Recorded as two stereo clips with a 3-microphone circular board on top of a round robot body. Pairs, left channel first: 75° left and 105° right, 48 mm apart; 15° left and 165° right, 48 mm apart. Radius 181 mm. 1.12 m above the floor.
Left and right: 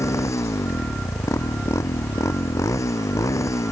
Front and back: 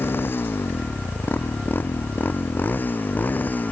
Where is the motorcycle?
60° left; by 3.7 s 70° left.